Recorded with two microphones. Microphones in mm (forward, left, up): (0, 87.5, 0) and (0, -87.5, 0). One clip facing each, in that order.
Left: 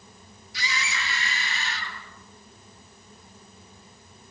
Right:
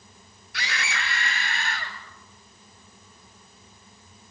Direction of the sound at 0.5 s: 65° right (ahead or behind).